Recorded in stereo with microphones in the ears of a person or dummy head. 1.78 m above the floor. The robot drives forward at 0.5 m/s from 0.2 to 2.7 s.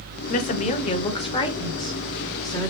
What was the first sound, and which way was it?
A woman speaking, 45° left (ahead or behind).